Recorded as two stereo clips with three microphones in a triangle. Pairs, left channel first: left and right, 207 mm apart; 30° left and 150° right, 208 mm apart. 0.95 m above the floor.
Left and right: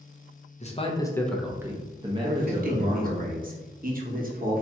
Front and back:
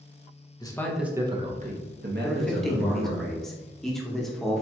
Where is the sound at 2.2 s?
60° right, 1.1 m.